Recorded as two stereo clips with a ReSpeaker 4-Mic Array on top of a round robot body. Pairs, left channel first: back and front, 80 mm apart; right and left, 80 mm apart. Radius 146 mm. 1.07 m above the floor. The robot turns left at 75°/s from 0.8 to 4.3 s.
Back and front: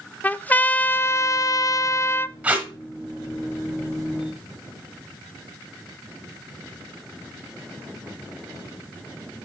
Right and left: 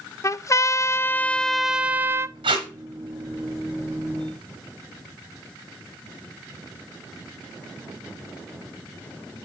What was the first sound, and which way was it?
A trumpet, 120° right.